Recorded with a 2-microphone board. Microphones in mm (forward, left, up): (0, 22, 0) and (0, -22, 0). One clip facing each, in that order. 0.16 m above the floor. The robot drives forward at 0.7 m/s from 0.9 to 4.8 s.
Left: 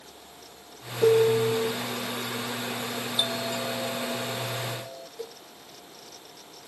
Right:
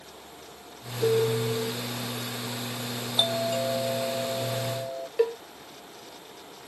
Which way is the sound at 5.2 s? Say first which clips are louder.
Right 17 dB; 85° right.